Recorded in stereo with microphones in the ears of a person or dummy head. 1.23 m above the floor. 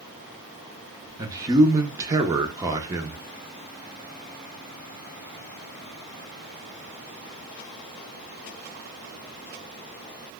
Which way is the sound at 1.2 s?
20° right (ahead or behind).